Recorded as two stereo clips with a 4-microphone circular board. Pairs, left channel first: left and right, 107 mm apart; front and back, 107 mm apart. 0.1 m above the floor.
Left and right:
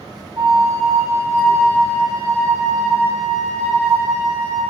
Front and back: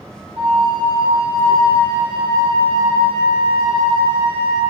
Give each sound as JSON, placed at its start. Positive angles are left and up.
{"t": 0.4, "sound": "a flute", "azimuth_deg": -140, "distance_m": 3.5}